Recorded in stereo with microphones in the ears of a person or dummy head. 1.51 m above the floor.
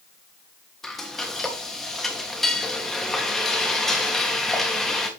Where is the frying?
Centre (ahead or behind), 2.5 m.